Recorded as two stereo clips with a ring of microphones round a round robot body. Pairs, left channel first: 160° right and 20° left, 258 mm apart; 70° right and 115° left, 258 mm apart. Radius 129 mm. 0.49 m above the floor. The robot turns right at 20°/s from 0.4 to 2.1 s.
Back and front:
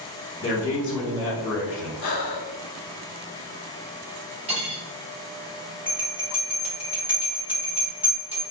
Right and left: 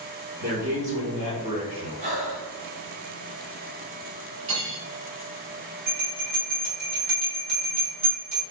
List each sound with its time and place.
0.4 s a man speaking: 145° left, 1.2 m; by 1.9 s 175° left, 1.2 m
2.0 s breathing: 175° left, 0.7 m
4.5 s cutlery clinking: 90° left, 1.4 m
5.9 s a bell: 105° left, 1.4 m